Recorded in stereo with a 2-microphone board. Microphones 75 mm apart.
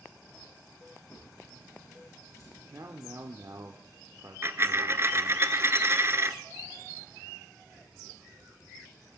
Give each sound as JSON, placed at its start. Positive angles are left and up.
{"t": 1.1, "sound": "a drawer", "side_deg": 50, "distance_m": 8.0}
{"t": 2.7, "sound": "a man speaking", "side_deg": -50, "distance_m": 1.0}
{"t": 4.4, "sound": "a dropped coin", "side_deg": -35, "distance_m": 0.6}